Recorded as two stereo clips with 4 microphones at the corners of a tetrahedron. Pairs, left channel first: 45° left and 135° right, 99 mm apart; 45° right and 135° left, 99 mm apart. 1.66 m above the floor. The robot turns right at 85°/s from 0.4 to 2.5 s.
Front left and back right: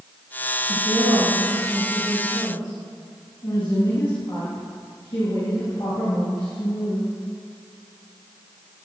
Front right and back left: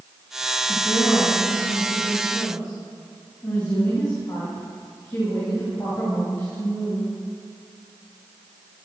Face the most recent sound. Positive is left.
turn(degrees=10)